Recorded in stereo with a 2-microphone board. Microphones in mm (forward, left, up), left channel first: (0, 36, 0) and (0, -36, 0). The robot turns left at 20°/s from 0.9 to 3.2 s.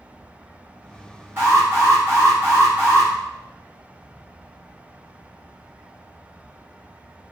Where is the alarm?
110° right, 1.4 m; by 3.1 s 145° right, 1.4 m.